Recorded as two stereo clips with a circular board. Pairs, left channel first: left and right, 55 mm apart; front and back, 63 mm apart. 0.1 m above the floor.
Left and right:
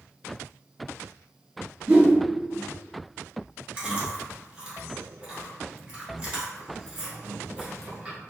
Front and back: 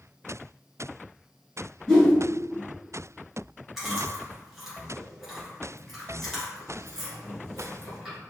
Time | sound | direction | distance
1.9 | a whoosh | 65° right | 1.4 m
3.8 | chewing | 105° right | 1.5 m